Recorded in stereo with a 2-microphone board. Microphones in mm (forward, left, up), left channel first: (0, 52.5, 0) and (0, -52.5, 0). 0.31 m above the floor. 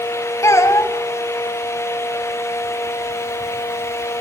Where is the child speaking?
30° left (ahead or behind), 1.6 m.